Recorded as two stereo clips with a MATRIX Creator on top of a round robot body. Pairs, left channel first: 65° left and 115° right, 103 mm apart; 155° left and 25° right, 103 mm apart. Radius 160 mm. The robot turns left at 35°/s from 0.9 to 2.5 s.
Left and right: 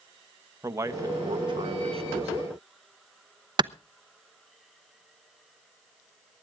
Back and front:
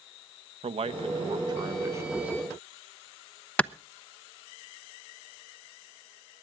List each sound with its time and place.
0.6 s a man speaking: 50° right, 1.0 m; by 2.3 s 100° right, 1.0 m
3.6 s a clap: 130° right, 0.8 m